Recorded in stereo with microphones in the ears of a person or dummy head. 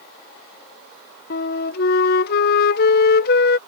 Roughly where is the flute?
Left.